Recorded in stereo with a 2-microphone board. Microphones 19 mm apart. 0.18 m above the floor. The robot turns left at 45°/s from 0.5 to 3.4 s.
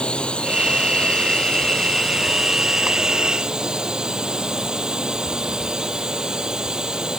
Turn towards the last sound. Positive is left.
turn(degrees=-40)